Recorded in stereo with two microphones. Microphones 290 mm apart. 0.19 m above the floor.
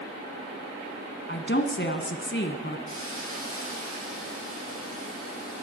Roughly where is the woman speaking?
Left.